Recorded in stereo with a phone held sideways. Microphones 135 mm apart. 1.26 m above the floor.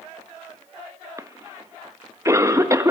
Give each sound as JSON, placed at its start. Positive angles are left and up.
{"t": 1.2, "sound": "a cough", "side_deg": -25, "distance_m": 1.5}